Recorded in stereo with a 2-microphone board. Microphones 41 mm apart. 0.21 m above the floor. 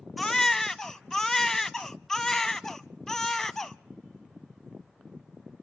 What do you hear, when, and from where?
0.2 s a baby crying: 10° left (ahead or behind), 0.6 m